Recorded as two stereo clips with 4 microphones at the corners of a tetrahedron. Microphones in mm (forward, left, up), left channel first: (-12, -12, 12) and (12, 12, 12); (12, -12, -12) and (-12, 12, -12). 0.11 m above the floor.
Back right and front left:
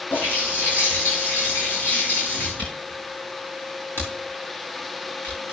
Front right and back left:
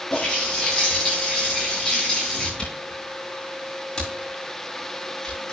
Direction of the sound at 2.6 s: 120° right.